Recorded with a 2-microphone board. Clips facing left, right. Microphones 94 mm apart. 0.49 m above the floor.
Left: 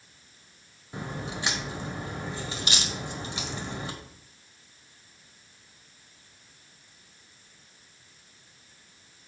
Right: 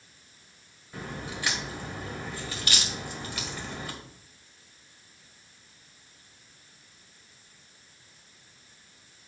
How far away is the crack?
About 1.4 m.